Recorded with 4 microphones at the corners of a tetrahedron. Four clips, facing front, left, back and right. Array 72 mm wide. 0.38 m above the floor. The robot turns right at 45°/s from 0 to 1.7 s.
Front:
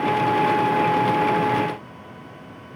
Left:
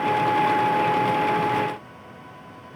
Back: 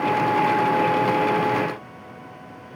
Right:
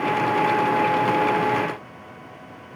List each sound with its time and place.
Only background noise.